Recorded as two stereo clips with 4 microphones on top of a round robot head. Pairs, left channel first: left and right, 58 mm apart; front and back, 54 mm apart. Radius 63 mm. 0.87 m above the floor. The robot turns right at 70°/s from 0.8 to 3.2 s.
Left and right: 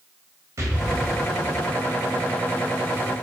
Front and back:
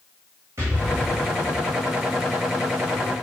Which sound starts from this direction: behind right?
An explosion, at 0.6 s.